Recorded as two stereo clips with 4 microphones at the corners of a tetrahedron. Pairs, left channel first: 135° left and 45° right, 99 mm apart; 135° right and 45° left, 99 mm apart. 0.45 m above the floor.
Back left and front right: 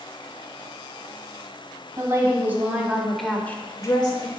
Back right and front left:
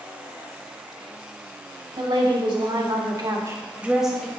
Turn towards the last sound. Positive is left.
turn(degrees=140)